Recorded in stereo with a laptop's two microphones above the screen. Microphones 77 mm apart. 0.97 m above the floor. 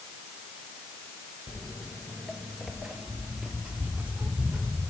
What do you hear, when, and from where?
1.5 s footsteps: 20° left (ahead or behind), 0.9 m; by 4.9 s 20° right (ahead or behind), 2 m